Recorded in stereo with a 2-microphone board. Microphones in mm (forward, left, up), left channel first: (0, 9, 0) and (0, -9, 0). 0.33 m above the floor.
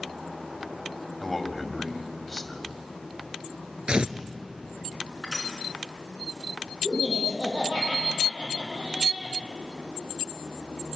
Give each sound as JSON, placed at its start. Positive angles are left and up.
{"t": 1.2, "sound": "a man speaking", "side_deg": 5, "distance_m": 2.0}
{"t": 3.9, "sound": "tearing paper", "side_deg": -55, "distance_m": 1.0}
{"t": 5.2, "sound": "crushing", "side_deg": -30, "distance_m": 4.0}
{"t": 6.8, "sound": "laughter", "side_deg": -40, "distance_m": 9.0}